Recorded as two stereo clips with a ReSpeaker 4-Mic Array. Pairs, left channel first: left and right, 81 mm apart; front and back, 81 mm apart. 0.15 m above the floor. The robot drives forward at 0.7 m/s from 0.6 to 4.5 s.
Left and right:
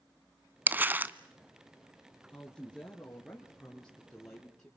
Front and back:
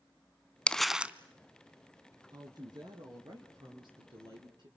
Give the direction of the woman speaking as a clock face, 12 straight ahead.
6 o'clock.